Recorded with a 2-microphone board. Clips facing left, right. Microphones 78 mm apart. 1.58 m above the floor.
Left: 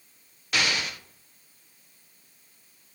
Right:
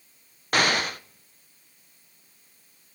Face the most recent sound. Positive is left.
turn(degrees=-45)  # may be behind; listen again after turning